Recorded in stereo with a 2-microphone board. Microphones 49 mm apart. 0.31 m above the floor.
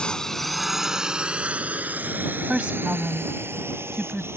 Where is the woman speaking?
20° right (ahead or behind).